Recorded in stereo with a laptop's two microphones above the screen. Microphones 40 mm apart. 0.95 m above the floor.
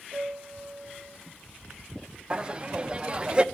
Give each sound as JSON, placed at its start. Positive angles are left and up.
{"t": 0.1, "sound": "a piano", "side_deg": -65, "distance_m": 9.0}
{"t": 2.3, "sound": "laughter", "side_deg": -20, "distance_m": 0.7}